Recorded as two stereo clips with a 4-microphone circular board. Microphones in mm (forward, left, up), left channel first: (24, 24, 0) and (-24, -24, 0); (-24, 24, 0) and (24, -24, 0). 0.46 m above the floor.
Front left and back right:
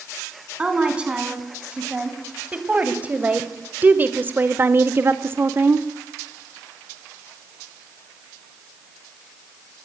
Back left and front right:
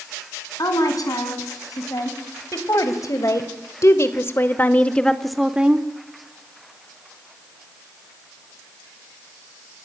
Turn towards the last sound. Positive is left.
turn(degrees=-95)